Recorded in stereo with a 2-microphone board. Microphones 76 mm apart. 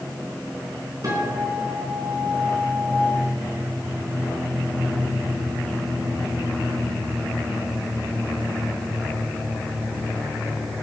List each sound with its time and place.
1.0 s a guitar: 50° right (ahead or behind), 4.5 m